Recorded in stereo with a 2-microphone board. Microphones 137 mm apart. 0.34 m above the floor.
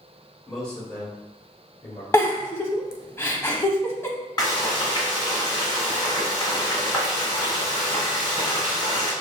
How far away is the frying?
About 1.6 m.